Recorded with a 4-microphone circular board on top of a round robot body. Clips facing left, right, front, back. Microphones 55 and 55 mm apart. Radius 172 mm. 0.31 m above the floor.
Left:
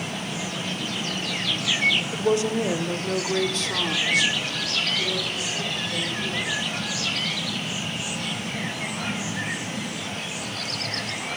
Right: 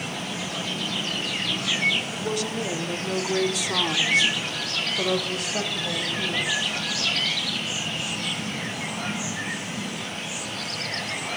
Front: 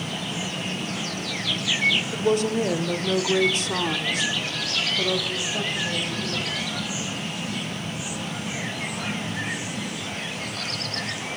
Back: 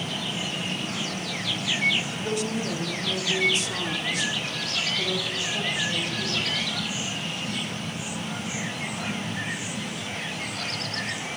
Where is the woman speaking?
35° left, 2.5 m; by 6.8 s 80° right, 4 m.